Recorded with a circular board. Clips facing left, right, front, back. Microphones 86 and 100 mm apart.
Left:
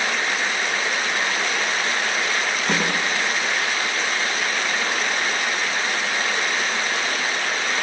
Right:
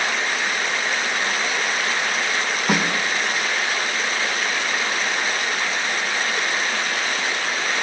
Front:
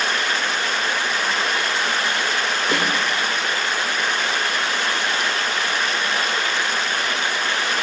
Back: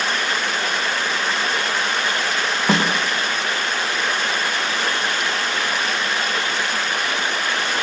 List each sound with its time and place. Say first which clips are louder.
2.7 s a snare drum: right 3 dB, back 5 dB; 175° right, 5.5 m